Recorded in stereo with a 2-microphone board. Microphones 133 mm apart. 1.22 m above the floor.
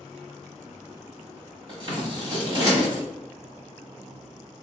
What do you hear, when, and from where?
1.7 s scissors: 35° right (ahead or behind), 1.3 m